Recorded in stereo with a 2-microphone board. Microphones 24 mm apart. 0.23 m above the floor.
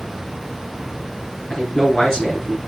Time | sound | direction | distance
1.5 | a man speaking | 25° left (ahead or behind) | 2 m